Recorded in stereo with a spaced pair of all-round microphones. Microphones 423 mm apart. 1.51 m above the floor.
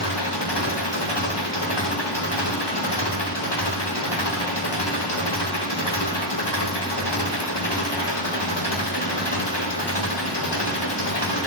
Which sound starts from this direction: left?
An engine running, at 0.0 s.